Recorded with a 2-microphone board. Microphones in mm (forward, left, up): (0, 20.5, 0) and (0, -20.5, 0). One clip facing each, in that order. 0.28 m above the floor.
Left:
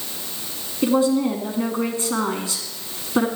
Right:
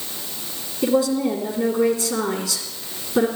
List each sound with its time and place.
0.8 s a woman speaking: 35° left (ahead or behind), 2.5 m